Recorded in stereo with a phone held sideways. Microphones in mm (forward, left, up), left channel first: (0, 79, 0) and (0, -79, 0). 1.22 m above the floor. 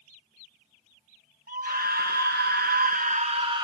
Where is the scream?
65° right (ahead or behind), 1.1 m; by 3.7 s 25° right (ahead or behind), 0.7 m.